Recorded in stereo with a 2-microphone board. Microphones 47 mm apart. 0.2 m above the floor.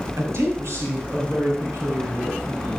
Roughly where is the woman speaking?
Right.